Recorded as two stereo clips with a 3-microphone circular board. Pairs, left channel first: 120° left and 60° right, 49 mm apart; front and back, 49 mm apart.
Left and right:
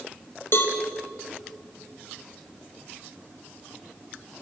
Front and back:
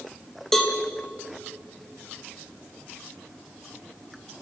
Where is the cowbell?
85° left, 2.5 m.